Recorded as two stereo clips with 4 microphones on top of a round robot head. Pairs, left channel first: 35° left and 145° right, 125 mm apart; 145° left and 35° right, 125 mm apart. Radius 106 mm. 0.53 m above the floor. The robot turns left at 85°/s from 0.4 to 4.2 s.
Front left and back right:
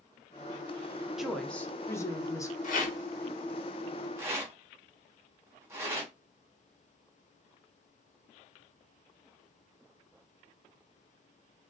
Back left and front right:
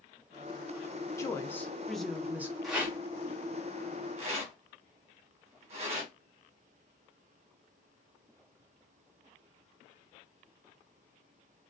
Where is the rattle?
55° left, 0.8 m; by 6.1 s 75° right, 0.8 m.